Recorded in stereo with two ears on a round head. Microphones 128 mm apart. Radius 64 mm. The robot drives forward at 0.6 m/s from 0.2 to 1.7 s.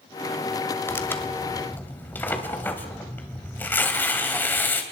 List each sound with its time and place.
0.9 s tearing paper: 15° left (ahead or behind), 1.9 m